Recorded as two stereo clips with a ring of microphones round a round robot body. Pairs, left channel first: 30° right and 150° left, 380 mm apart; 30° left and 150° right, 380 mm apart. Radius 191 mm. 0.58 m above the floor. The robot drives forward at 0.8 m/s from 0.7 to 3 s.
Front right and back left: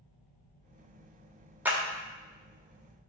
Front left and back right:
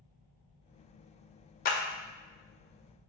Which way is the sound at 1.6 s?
70° left.